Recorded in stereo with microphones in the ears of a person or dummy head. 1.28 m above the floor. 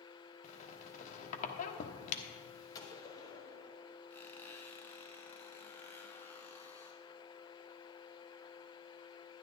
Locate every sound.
0.4 s a squeak: 40° left (ahead or behind), 1.1 m
2.8 s a gunshot: 20° left (ahead or behind), 1.6 m
4.1 s a squeak: 10° left (ahead or behind), 1.4 m